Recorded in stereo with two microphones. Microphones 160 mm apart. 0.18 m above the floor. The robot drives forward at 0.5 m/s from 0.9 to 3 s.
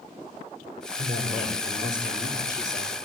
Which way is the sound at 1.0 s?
60° right (ahead or behind).